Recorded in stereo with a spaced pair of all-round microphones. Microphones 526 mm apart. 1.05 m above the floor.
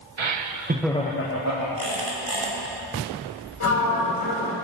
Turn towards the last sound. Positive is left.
turn(degrees=70)  # may be behind; listen again after turning